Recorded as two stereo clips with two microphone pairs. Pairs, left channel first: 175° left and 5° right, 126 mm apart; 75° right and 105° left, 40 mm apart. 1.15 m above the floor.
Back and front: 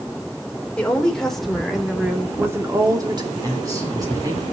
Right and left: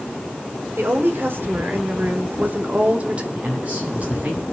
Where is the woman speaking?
95° left, 4 m; by 3.2 s 45° left, 2.5 m.